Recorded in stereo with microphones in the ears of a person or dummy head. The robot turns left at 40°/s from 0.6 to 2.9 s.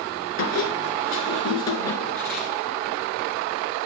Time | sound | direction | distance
0.4 | a squeak | 85° left | 1.6 m